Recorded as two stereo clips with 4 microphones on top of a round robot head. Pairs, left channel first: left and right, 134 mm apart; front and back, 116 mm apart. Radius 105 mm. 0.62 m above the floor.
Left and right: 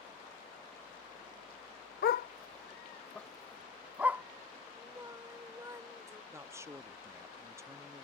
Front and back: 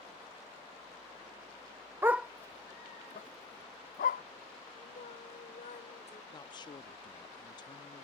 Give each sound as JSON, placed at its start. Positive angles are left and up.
{"t": 2.0, "sound": "a dog barking", "azimuth_deg": 110}
{"t": 4.8, "sound": "singing", "azimuth_deg": -25}
{"t": 6.3, "sound": "a man speaking", "azimuth_deg": -25}